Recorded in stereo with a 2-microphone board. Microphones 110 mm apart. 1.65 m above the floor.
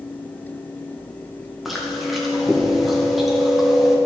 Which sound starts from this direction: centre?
Chewing, at 1.6 s.